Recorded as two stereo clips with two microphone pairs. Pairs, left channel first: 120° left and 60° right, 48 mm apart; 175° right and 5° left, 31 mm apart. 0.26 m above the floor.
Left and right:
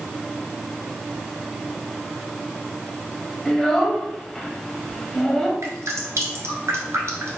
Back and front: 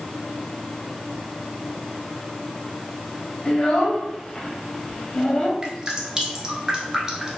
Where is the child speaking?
170° right, 0.9 m.